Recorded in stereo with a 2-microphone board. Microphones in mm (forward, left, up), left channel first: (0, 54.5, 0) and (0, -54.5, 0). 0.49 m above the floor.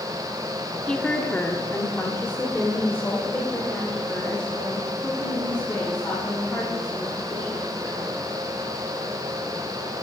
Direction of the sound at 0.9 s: 10° left (ahead or behind).